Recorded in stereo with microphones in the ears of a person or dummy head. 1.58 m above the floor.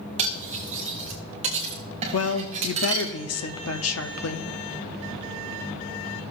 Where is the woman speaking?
80° left, 0.7 m.